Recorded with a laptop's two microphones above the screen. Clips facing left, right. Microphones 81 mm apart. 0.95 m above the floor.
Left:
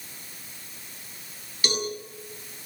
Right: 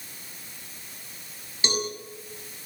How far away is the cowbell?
About 6.5 m.